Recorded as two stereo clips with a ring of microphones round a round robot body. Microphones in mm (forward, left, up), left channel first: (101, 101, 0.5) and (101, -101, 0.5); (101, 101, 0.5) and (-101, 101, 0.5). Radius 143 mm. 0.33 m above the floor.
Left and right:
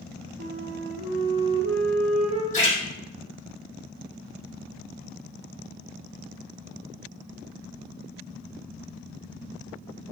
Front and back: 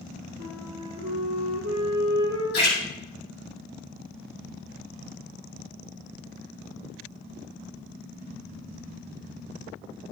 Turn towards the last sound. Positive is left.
turn(degrees=40)